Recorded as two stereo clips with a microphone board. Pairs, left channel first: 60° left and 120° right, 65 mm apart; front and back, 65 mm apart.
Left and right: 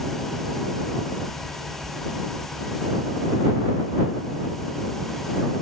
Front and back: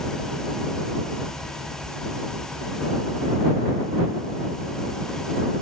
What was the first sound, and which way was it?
Only background noise.